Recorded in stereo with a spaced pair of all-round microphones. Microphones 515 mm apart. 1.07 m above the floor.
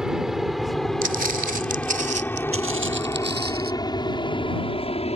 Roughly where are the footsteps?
Right.